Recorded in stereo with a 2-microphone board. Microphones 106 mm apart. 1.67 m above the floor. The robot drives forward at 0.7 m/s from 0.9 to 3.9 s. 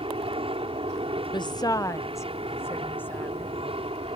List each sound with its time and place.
0.0 s an aircraft: 60° right (ahead or behind); by 4.2 s 65° right (ahead or behind)
1.3 s a woman speaking: 50° left (ahead or behind); by 3.5 s 15° left (ahead or behind)